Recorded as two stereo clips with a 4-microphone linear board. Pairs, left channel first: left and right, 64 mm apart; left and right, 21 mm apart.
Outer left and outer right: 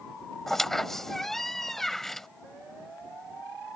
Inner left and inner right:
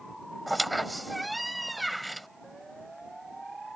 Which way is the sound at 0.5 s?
5° left (ahead or behind).